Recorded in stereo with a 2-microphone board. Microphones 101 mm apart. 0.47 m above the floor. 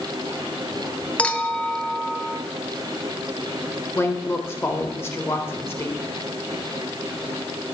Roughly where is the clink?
Centre.